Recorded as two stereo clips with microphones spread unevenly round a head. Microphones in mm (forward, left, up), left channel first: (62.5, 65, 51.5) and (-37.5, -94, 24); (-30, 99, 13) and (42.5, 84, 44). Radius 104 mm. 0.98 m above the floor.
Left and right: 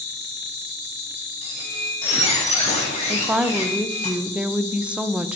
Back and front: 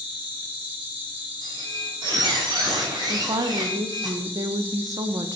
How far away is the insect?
About 5 m.